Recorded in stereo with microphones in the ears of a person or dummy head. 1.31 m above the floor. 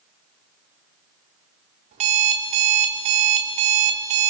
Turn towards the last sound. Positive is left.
turn(degrees=-30)  # may be behind; listen again after turning